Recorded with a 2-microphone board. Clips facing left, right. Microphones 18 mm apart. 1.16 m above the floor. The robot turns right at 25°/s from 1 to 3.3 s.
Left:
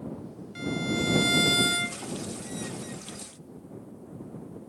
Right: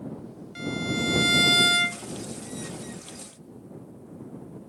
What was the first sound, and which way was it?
A violin, 10° right (ahead or behind).